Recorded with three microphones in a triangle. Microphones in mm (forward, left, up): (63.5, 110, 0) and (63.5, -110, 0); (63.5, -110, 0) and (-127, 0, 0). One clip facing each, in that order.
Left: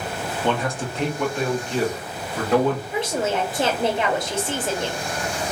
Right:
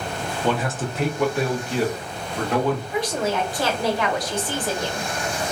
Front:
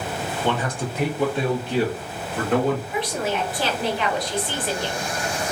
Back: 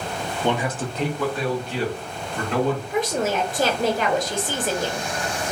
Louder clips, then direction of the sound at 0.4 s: Even, back 2 dB; 170° right.